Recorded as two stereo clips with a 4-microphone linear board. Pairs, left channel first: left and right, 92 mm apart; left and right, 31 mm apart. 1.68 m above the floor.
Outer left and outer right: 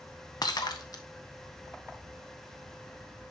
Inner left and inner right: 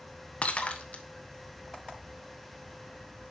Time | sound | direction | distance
0.4 | breaking glass | 45° left (ahead or behind) | 1.1 m